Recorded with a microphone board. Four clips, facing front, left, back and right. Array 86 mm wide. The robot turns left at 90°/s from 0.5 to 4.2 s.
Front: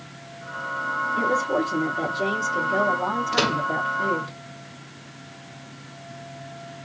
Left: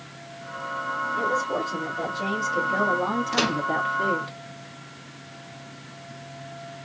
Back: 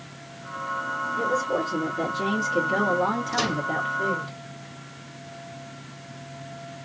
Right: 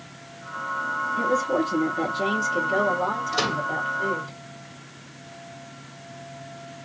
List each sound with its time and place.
1.2 s a woman speaking: 20° right, 1.9 m; by 4.3 s 70° left, 1.9 m
3.3 s a microwave: 40° left, 1.0 m; by 3.7 s 10° left, 1.0 m